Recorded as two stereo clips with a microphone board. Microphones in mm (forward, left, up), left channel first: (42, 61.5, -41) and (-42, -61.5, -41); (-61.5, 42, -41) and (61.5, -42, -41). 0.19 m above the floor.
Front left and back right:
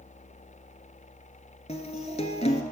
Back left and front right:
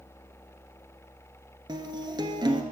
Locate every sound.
1.7 s a guitar: 20° left, 0.8 m